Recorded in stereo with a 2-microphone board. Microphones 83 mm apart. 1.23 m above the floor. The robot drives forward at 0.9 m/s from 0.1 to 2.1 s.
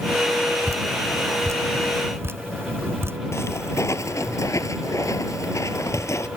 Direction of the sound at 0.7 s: 40° right (ahead or behind).